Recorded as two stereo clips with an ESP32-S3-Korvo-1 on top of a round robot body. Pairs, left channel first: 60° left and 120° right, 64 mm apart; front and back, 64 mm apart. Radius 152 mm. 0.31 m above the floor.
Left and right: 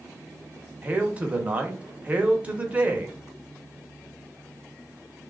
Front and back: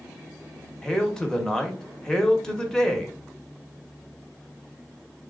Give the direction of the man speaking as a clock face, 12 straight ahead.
2 o'clock.